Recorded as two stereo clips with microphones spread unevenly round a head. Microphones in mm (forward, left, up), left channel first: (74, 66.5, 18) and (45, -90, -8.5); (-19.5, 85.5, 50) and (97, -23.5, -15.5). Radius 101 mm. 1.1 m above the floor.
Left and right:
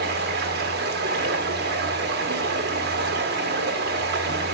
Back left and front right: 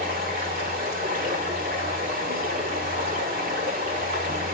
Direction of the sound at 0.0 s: 100° right.